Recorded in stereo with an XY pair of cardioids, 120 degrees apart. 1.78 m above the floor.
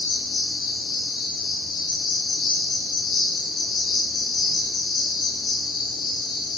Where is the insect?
70° left, 4.5 m.